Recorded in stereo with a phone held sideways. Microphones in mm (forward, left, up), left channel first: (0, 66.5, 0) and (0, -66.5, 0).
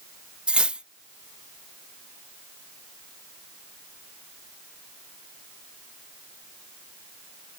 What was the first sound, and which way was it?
Cutlery clinking, 10° right (ahead or behind).